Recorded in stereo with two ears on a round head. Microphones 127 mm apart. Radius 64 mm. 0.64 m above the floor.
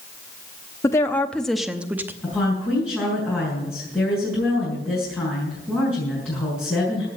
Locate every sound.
0.8 s a woman speaking: 20° left (ahead or behind), 0.8 m; by 2.1 s 15° right (ahead or behind), 0.9 m
2.2 s a woman speaking: 10° left (ahead or behind), 5.5 m